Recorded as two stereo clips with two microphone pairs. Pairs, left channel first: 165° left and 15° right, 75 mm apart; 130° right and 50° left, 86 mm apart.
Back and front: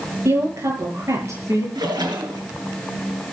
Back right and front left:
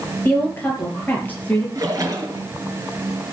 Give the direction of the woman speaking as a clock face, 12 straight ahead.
2 o'clock.